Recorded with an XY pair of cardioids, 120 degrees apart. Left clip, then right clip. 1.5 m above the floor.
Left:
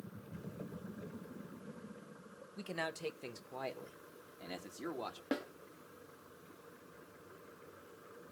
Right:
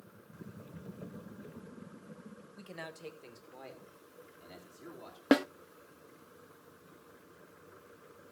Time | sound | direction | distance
2.6 | a man speaking | 30° left | 1.4 m
5.3 | a snare drum | 70° right | 0.5 m